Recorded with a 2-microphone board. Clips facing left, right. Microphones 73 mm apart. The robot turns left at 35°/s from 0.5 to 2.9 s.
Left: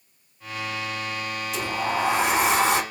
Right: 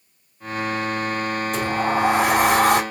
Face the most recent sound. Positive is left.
turn(degrees=-110)